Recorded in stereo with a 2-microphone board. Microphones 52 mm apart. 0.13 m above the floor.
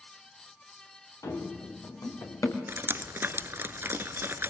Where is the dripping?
45° right (ahead or behind), 1.0 m.